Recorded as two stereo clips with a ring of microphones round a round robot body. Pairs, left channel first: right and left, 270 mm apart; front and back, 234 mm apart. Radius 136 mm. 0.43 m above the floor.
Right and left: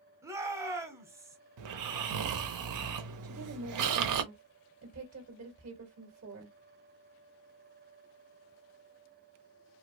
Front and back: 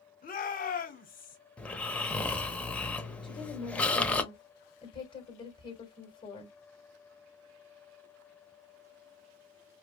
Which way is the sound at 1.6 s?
85° left.